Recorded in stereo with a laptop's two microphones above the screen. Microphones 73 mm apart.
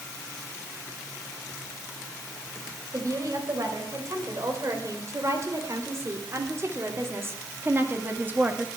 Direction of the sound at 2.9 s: 50° right (ahead or behind).